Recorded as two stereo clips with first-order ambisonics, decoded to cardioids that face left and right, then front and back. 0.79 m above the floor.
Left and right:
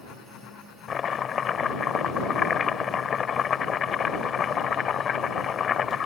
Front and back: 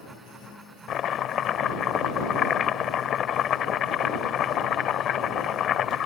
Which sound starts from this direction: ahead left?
Chopping, at 0.9 s.